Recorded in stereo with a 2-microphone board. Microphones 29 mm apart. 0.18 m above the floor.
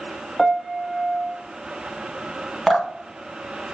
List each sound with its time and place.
0.4 s a piano: 20° left (ahead or behind), 0.8 m
2.7 s dripping: 10° left (ahead or behind), 1.2 m